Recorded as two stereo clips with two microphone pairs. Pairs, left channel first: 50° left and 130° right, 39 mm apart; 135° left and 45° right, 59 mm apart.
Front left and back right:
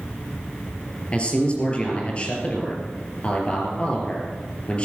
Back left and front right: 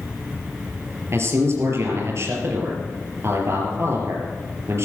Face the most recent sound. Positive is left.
turn(degrees=-10)